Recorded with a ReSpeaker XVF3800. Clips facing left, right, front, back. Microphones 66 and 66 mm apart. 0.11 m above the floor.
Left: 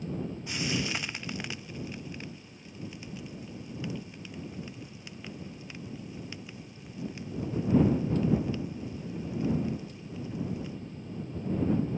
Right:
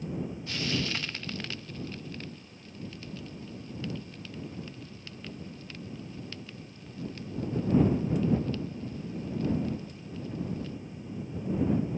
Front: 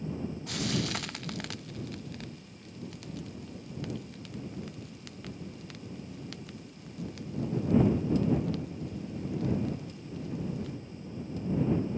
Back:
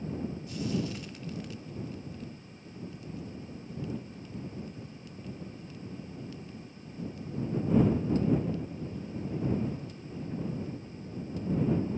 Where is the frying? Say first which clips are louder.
Even, front 1 dB; 15° left.